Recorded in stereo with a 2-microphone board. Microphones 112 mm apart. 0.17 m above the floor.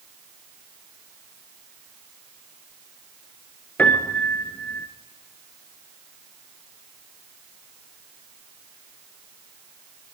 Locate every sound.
3.8 s a piano: 15° left (ahead or behind), 1.4 m